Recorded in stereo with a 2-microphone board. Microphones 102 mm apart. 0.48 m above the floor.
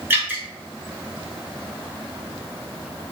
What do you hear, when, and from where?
0.1 s dripping: 20° right (ahead or behind), 1.2 m